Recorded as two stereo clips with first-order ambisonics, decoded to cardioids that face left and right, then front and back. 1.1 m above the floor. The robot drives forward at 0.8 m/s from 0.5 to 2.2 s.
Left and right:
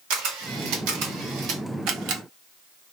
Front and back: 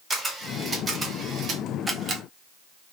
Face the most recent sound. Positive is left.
turn(degrees=-120)